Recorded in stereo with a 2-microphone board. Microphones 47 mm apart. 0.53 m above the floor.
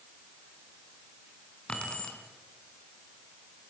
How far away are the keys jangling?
About 4 m.